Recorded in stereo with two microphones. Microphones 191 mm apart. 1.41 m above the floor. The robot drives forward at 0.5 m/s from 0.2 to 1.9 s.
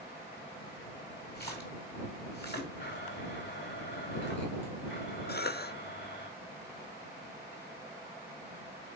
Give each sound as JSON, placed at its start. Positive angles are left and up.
{"t": 1.4, "sound": "a splash", "side_deg": 60, "distance_m": 2.0}
{"t": 2.8, "sound": "a blender", "side_deg": 85, "distance_m": 5.0}
{"t": 5.3, "sound": "a cough", "side_deg": 60, "distance_m": 0.6}